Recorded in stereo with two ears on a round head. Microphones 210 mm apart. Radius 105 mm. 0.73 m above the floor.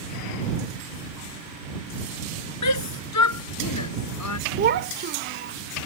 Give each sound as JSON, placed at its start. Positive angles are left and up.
{"t": 2.6, "sound": "a shout", "side_deg": 85}
{"t": 4.6, "sound": "a child speaking", "side_deg": -45}